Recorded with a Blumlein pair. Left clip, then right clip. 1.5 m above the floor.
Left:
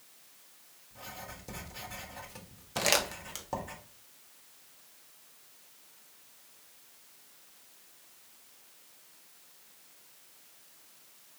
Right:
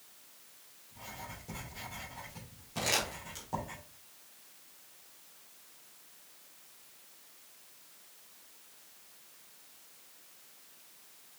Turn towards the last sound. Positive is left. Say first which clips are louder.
# left 4 dB
turn(degrees=30)